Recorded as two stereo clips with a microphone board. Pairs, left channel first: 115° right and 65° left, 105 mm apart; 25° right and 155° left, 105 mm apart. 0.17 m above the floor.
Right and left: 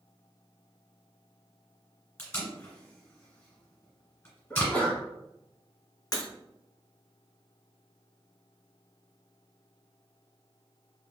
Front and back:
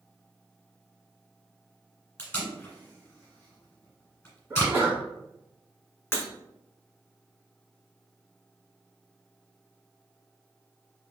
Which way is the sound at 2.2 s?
70° right.